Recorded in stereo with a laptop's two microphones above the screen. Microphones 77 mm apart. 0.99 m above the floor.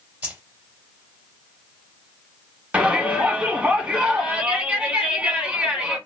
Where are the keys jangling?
20° right (ahead or behind), 1.7 m.